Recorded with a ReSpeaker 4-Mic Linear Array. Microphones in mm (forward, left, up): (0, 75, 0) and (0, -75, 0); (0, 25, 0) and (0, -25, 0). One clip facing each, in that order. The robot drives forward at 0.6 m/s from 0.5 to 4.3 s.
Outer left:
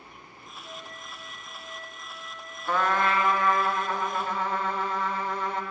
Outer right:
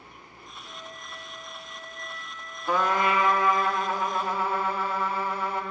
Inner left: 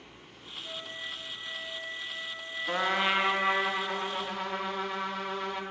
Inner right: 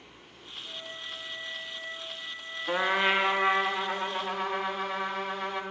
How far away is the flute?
About 6.5 m.